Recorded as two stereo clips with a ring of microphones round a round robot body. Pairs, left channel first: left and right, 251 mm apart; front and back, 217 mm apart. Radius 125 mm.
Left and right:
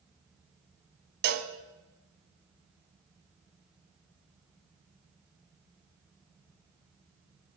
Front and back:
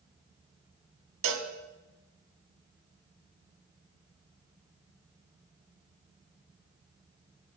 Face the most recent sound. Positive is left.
turn(degrees=-140)